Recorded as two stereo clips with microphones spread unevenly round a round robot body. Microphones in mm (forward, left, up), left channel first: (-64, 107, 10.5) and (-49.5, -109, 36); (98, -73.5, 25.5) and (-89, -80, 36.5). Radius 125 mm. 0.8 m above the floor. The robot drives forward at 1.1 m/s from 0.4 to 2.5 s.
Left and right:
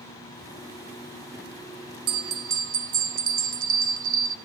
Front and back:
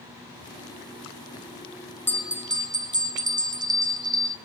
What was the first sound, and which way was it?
A bell, 65° right.